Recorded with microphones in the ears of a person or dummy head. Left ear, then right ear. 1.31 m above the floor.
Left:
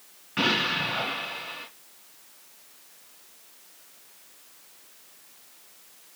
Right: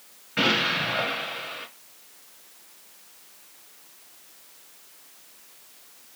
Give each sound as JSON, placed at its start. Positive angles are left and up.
{"t": 0.4, "sound": "an explosion", "side_deg": 10, "distance_m": 2.5}